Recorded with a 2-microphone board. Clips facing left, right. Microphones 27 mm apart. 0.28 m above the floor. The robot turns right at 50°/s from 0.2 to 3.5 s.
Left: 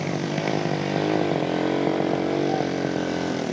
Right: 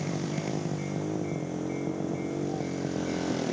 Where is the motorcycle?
40° left (ahead or behind); by 3.5 s 15° left (ahead or behind).